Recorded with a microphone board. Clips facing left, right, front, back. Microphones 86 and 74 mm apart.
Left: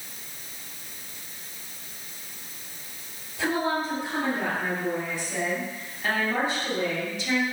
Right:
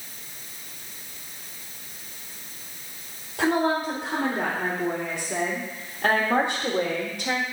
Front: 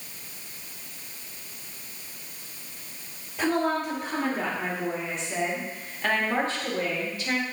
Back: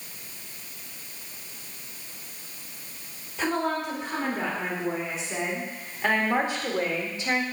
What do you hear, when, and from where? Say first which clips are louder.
3.4 s a woman speaking: right 4 dB, front 2 dB; 85° right, 3 m; by 7.4 s 120° right, 1.5 m